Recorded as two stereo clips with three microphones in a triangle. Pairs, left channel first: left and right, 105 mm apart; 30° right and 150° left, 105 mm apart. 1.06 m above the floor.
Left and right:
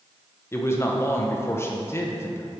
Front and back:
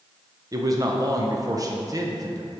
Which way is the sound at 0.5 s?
135° left.